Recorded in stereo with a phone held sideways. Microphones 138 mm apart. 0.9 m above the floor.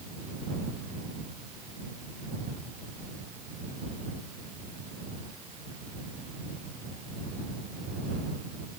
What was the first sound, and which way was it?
Only background noise.